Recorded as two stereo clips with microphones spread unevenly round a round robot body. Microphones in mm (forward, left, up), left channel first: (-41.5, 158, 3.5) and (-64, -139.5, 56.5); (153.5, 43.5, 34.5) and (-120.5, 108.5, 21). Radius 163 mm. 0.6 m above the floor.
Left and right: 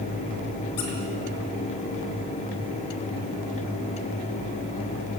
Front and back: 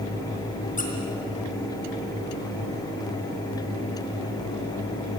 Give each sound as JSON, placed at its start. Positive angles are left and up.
{"t": 0.8, "sound": "a squeak", "azimuth_deg": 50, "distance_m": 4.5}